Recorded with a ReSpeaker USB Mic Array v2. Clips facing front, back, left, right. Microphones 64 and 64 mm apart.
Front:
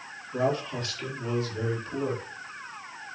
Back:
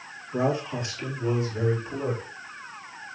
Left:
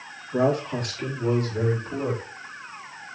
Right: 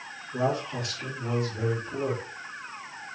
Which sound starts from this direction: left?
A man speaking, at 0.3 s.